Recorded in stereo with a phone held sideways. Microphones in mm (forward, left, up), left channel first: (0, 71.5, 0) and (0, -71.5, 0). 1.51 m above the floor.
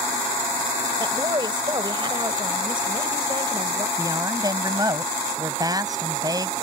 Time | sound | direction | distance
1.0 | a woman speaking | 35° right (ahead or behind) | ?
4.0 | a woman speaking | 25° right (ahead or behind) | ?